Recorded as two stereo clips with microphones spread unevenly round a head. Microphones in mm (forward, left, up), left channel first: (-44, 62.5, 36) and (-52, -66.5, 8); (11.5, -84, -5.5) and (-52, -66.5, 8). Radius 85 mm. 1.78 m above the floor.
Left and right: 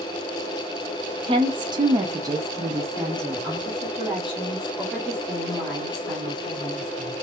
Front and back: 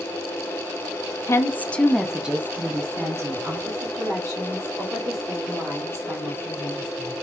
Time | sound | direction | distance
1.3 | a woman speaking | 35° right | 0.6 m